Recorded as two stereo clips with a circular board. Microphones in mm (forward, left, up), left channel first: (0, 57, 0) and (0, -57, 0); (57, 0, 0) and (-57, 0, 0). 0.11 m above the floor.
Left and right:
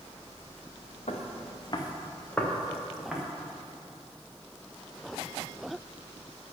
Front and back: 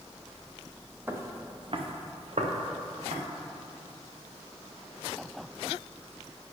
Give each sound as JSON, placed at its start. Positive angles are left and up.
{"t": 1.1, "sound": "footsteps", "azimuth_deg": 105, "distance_m": 1.5}